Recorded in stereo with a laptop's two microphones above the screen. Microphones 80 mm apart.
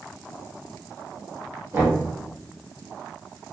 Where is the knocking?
30° right (ahead or behind), 1.6 m.